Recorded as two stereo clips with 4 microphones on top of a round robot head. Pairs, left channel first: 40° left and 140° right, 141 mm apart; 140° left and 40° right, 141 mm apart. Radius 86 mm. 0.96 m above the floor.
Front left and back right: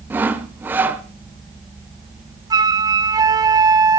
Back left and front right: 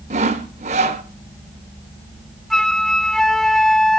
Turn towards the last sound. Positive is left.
turn(degrees=-135)